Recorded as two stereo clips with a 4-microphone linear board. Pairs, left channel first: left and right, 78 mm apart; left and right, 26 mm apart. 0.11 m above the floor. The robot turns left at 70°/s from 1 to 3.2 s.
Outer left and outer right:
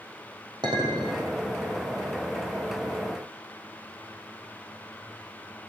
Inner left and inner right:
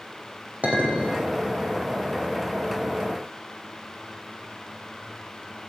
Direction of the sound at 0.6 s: 75° right (ahead or behind).